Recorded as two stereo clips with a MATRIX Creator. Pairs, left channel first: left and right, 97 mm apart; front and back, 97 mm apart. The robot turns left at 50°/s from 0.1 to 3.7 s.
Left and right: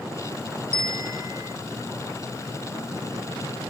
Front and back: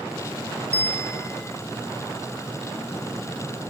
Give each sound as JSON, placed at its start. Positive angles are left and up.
{"t": 0.7, "sound": "a bell", "azimuth_deg": 75, "distance_m": 1.5}